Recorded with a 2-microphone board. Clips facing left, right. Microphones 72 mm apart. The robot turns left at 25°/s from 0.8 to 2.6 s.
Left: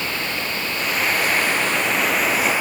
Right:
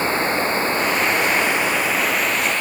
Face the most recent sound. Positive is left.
turn(degrees=170)